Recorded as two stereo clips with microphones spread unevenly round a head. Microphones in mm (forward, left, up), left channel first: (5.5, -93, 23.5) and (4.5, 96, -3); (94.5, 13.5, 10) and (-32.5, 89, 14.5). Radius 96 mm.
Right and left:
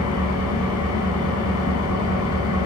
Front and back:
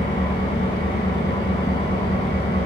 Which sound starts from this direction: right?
An engine running, at 0.0 s.